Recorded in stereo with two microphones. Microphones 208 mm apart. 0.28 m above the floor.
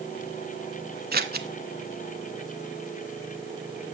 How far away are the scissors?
About 0.8 m.